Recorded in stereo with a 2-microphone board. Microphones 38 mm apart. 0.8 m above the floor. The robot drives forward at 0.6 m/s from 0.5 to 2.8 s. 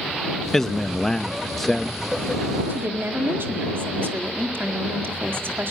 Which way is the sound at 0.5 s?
10° left (ahead or behind).